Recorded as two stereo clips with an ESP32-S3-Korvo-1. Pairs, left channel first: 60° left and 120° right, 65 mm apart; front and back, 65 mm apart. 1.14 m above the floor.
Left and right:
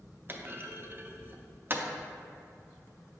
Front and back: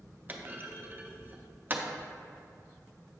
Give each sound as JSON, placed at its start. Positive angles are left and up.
{"t": 0.3, "sound": "a clunk", "azimuth_deg": -140, "distance_m": 0.5}